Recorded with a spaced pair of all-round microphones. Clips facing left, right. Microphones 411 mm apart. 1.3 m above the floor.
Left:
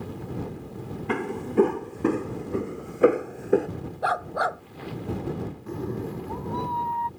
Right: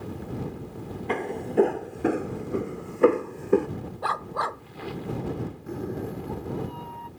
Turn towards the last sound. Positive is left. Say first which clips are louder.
# left 1 dB
turn(degrees=10)  # may be behind; listen again after turning